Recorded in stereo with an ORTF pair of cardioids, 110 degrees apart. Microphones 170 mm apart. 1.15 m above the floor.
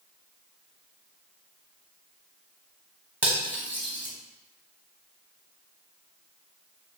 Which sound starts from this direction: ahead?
Cutlery clinking, at 3.2 s.